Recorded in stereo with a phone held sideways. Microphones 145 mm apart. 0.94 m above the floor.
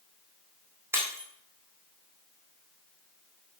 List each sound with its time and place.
0.9 s breaking glass: 15° right (ahead or behind), 3.5 m